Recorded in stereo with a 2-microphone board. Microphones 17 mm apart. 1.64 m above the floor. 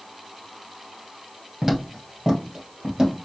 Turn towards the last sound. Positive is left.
turn(degrees=-35)  # may be behind; listen again after turning